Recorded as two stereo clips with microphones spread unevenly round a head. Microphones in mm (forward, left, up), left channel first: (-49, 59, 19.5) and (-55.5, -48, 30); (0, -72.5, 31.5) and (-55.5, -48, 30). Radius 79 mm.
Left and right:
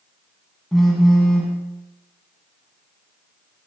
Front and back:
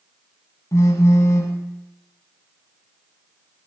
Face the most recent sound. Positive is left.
turn(degrees=-10)